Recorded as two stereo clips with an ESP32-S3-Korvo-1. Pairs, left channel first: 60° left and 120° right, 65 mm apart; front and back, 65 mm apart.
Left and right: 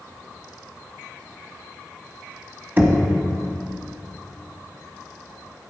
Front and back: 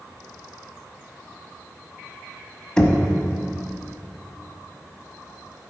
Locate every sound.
2.8 s knocking: 75° right, 1.0 m